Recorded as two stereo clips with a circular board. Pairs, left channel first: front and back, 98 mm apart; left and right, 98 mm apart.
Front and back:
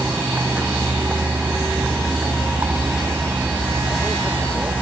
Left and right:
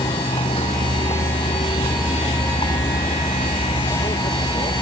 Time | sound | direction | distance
0.0 | a vehicle | 105° left | ?